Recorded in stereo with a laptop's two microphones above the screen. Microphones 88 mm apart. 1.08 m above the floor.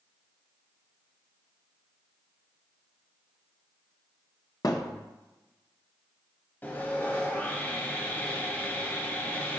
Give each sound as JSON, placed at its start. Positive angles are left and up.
{"t": 4.6, "sound": "a thud", "side_deg": 45, "distance_m": 0.9}
{"t": 6.6, "sound": "sawing", "side_deg": 25, "distance_m": 1.3}